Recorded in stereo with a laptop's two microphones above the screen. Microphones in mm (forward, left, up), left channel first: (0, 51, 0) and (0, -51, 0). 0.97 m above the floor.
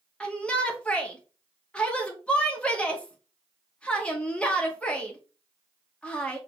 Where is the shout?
10° left (ahead or behind), 0.8 m.